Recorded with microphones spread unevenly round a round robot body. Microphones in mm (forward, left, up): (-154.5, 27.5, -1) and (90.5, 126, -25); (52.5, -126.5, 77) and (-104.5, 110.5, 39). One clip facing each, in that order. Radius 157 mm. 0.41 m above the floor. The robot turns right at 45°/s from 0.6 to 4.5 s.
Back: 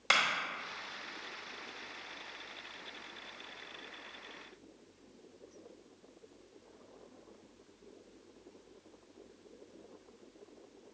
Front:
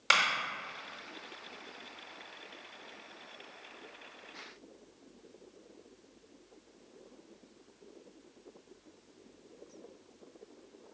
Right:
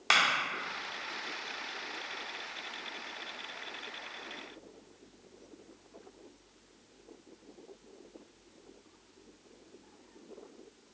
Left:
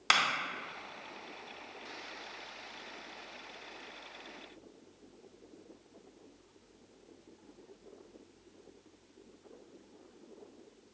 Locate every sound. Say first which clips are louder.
0.1 s a clap: front 1 dB, right 2 dB; 100° left, 0.6 m